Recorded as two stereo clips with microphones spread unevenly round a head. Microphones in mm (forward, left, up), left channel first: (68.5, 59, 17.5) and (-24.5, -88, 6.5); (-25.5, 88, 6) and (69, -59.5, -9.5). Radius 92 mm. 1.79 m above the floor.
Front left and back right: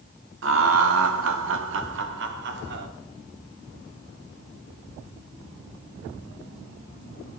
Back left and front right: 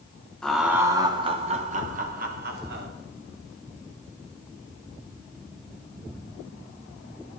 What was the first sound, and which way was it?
Laughter, 150° right.